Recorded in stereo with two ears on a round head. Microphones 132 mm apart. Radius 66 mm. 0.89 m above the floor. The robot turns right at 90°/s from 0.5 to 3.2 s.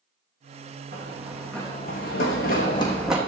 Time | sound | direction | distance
0.9 | running footsteps | 55° right (ahead or behind) | 4 m